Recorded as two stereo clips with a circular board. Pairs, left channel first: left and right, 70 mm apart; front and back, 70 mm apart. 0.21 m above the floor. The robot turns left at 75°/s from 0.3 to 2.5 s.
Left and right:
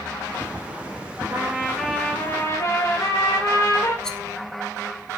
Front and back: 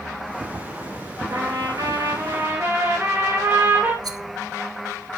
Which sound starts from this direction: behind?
A rattle, at 4.0 s.